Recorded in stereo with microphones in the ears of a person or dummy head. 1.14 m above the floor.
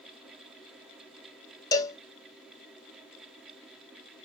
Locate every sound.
1.7 s a cowbell: 15° left (ahead or behind), 0.6 m